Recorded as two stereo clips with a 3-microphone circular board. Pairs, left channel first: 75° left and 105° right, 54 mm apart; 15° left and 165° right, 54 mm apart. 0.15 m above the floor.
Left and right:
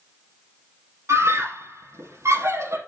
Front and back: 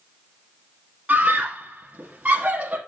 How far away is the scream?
About 3 m.